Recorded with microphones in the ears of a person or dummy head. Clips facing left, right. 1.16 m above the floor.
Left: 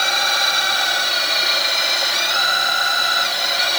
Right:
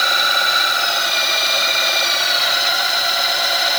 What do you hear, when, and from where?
Only background noise.